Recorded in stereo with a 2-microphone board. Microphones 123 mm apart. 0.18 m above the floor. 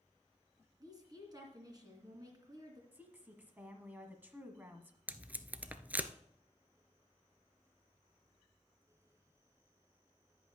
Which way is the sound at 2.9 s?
15° right (ahead or behind).